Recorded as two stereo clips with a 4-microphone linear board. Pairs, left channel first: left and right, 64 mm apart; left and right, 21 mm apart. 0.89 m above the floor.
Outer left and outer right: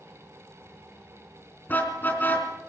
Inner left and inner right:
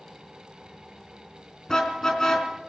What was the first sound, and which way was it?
A car horn, 30° left (ahead or behind).